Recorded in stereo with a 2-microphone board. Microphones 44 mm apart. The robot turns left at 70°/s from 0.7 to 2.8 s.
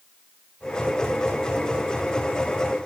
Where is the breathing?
I don't hear breathing.